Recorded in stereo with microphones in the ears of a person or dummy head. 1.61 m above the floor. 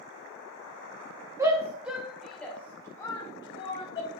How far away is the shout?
About 2 m.